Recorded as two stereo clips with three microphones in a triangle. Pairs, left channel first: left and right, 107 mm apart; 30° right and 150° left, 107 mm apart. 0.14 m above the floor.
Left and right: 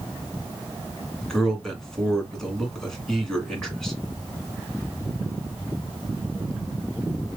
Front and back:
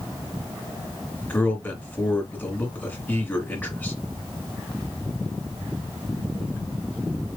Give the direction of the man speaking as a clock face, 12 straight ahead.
12 o'clock.